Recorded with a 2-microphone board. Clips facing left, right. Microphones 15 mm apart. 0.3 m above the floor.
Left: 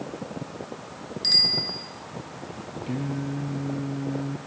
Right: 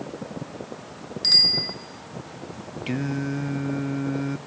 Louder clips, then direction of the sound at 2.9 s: Right 3 dB; 50° right (ahead or behind).